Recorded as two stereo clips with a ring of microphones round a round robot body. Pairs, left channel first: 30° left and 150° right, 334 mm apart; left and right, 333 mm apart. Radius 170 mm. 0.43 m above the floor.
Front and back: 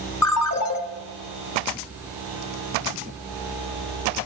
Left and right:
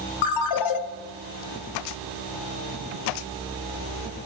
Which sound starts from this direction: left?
A ringtone, at 0.2 s.